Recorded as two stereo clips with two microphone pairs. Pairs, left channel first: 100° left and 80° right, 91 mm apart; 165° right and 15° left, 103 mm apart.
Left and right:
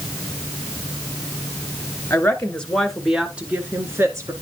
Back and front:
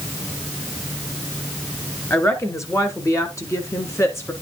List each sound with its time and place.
2.1 s a woman speaking: 150° left, 1.7 m; by 4.3 s 110° right, 1.8 m